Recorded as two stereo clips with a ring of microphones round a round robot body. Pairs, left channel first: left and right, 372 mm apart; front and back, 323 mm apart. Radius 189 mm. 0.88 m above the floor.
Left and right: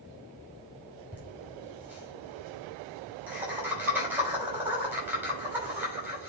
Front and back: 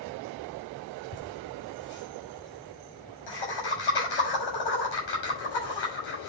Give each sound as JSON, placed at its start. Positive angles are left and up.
{"t": 1.1, "sound": "laughter", "azimuth_deg": -5, "distance_m": 6.0}